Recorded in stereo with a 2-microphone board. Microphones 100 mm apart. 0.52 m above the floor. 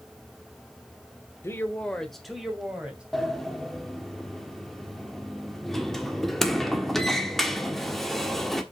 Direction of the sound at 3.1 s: 5° left (ahead or behind).